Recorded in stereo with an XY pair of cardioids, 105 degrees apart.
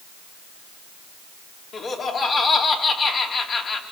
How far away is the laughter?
About 5 m.